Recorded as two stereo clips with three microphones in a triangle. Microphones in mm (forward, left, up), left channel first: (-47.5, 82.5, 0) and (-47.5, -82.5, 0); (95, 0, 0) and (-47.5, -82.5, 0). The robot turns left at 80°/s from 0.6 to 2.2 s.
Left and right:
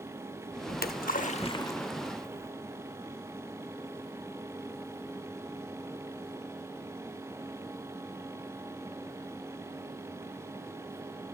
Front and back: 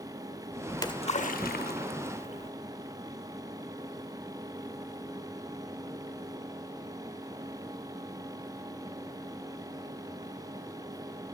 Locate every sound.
0.7 s a splash: 105° left, 0.6 m; by 2.5 s 20° right, 0.6 m